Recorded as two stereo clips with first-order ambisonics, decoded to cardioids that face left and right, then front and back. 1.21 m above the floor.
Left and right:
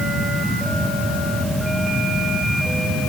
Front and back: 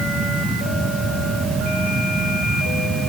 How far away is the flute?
I don't hear a flute.